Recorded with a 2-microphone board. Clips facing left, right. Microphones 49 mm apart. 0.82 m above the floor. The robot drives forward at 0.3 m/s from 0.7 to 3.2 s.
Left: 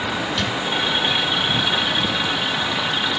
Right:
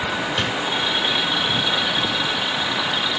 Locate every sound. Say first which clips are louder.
0.4 s a drawer: even; 25° right (ahead or behind), 4 m